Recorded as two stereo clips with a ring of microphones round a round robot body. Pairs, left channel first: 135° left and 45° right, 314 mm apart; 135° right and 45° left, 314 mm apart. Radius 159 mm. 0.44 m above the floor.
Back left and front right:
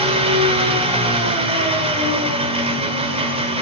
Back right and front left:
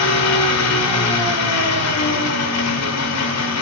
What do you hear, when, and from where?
0.0 s an engine running: 115° right, 1.6 m